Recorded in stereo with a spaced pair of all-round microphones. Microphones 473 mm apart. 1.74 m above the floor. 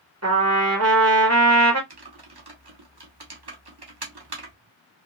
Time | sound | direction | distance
0.2 | a trumpet | 35° right (ahead or behind) | 1.2 m
1.9 | typing on a keyboard | 55° right (ahead or behind) | 1.0 m